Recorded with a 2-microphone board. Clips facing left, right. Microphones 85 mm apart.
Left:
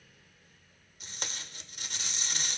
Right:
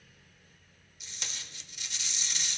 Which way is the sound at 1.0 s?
45° left (ahead or behind).